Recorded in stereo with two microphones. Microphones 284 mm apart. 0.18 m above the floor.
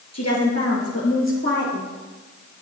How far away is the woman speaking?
About 3.5 m.